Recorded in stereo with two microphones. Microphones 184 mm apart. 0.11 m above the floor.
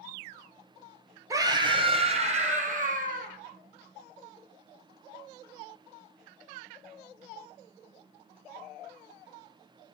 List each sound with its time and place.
1.3 s a scream: 20° right (ahead or behind), 3 m; by 3.3 s 50° right (ahead or behind), 4.5 m